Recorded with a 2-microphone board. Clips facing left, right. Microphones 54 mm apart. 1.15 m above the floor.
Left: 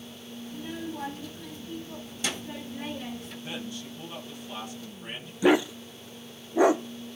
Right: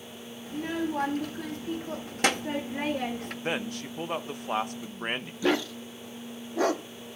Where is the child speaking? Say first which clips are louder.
Right 7 dB; 70° right (ahead or behind), 1.6 m.